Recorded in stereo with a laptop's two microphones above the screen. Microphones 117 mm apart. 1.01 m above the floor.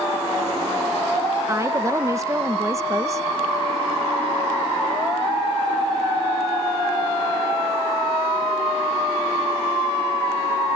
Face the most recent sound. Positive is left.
turn(degrees=-25)  # may be behind; listen again after turning